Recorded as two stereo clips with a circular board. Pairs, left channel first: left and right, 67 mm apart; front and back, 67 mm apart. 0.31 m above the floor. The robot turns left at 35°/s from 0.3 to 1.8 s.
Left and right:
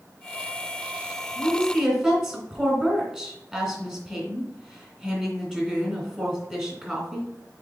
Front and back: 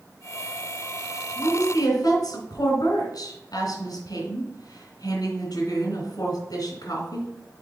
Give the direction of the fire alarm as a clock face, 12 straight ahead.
I don't hear a fire alarm.